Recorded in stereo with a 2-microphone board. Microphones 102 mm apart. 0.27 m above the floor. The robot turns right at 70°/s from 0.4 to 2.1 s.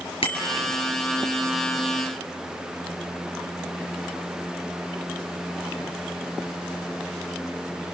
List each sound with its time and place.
0.2 s a bicycle bell: 60° left (ahead or behind), 3 m; by 0.7 s 75° left (ahead or behind), 3 m